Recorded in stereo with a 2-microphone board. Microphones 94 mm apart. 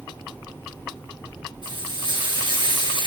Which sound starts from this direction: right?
Frying, at 1.6 s.